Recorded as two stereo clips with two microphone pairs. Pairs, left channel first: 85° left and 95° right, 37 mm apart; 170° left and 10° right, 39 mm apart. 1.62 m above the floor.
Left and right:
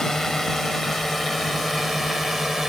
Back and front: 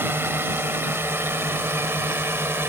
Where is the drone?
5° left; by 2.7 s 10° right.